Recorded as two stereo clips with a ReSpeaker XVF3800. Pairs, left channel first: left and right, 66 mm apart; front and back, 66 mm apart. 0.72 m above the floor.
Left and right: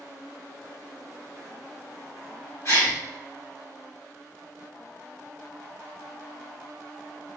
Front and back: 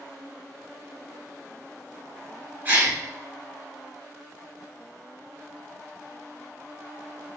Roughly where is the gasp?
Behind left.